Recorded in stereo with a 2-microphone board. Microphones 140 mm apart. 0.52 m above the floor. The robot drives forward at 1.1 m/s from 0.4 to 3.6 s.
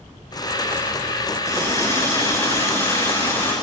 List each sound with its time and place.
1.5 s a running tap: 25° left (ahead or behind), 6.5 m; by 3.5 s 20° left (ahead or behind), 9 m